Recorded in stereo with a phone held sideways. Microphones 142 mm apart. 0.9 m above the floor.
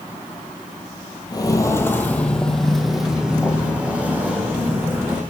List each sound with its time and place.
1.3 s footsteps: 30° left (ahead or behind), 1.1 m; by 5.2 s 15° right (ahead or behind), 3 m